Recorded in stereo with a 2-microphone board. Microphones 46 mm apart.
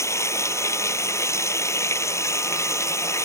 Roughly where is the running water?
Left.